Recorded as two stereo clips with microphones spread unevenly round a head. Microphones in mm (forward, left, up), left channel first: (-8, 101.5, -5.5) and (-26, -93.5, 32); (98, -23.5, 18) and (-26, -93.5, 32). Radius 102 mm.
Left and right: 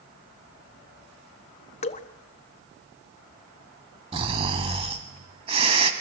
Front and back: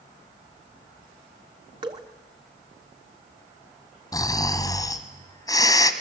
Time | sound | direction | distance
1.8 | dripping | 140° left | 1.1 m
4.1 | snoring | 35° right | 1.8 m